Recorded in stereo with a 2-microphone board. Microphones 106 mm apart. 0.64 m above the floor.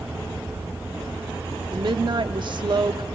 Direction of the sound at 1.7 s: 55° right (ahead or behind).